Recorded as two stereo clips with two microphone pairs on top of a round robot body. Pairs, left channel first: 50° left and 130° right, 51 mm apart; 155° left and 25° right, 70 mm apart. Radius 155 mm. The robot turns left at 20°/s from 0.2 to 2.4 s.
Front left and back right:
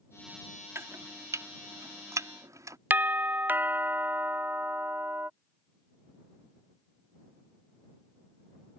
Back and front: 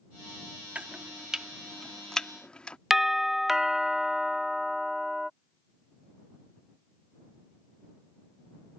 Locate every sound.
0.8 s chopping: 95° right; by 2.8 s 130° right
2.9 s a doorbell: 120° right